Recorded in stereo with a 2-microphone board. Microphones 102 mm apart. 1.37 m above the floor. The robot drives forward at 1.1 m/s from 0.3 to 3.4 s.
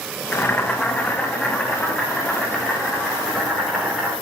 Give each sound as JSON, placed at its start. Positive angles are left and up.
{"t": 0.3, "sound": "boiling", "side_deg": 20, "distance_m": 1.3}